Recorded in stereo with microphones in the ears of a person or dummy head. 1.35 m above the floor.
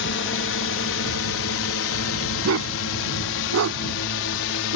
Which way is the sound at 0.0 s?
60° left (ahead or behind).